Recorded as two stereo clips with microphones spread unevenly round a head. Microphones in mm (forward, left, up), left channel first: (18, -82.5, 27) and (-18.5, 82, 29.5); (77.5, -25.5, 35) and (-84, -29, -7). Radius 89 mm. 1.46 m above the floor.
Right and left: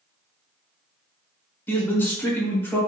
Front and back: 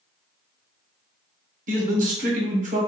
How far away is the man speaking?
About 0.8 m.